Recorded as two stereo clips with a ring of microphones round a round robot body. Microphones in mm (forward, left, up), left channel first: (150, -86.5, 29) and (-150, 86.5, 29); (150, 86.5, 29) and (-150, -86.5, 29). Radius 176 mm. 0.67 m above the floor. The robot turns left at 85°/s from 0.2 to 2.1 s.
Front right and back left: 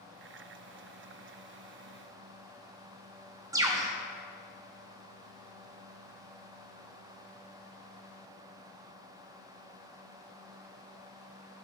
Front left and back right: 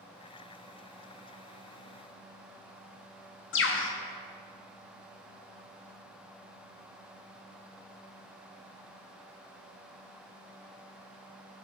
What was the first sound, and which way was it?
A bird, 75° left.